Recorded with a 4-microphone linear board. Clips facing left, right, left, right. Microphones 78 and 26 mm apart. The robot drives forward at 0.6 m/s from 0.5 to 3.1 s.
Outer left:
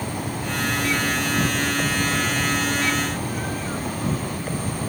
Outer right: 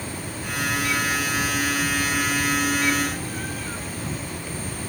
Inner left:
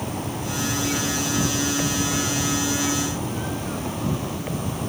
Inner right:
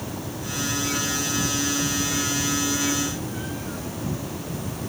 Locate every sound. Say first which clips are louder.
0.0 s an insect: outer left 5 dB, inner left 4 dB; 65° left (ahead or behind); by 4.9 s 60° left (ahead or behind)